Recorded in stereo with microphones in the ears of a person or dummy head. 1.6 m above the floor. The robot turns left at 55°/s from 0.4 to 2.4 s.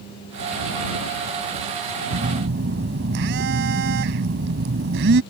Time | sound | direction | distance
2.1 | a phone buzzing | 60° right (ahead or behind) | ?